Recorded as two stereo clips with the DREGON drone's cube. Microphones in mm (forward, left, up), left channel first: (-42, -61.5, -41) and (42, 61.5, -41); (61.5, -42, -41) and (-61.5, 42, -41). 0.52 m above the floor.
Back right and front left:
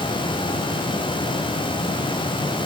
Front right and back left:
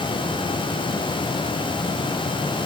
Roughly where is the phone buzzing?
I don't hear a phone buzzing.